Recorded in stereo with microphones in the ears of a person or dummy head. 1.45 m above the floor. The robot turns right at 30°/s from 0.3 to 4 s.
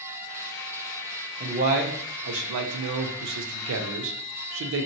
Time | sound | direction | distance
1.4 | a man speaking | 145° right | 0.6 m